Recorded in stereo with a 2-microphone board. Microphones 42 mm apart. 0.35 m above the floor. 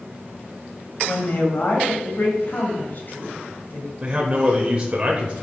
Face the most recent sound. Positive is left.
turn(degrees=-25)  # may be behind; listen again after turning